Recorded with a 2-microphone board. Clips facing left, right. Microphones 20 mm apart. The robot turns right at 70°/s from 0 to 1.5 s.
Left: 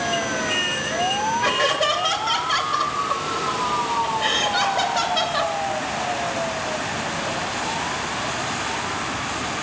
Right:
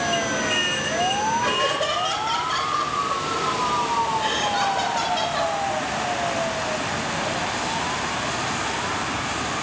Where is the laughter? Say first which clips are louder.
Left 2 dB; 30° left (ahead or behind), 1.5 m.